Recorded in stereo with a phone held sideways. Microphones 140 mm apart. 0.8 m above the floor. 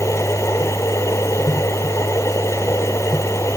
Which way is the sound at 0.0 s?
20° left (ahead or behind).